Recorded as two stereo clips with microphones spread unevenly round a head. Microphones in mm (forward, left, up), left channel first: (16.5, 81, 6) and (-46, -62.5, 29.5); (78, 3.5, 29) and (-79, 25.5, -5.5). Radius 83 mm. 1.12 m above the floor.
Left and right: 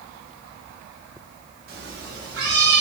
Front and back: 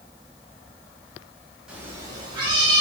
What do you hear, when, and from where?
1.7 s a cat meowing: 95° right, 0.8 m; by 2.8 s 125° right, 1.8 m